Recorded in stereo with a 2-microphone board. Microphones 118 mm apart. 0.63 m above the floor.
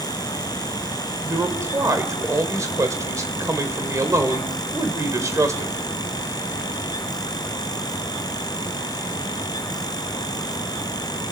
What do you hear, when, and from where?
1.2 s a man speaking: 30° right (ahead or behind), 3 m